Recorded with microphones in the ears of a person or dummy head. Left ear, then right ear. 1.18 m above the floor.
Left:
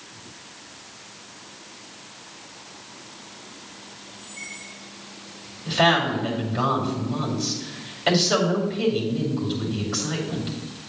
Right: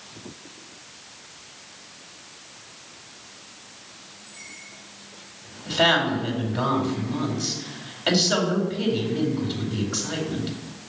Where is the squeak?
25° right (ahead or behind), 3 m.